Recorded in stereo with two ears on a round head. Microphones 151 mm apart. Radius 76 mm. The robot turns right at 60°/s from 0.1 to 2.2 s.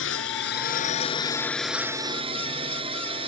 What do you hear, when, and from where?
0.0 s a drone: 85° left; by 3.3 s 35° right (ahead or behind)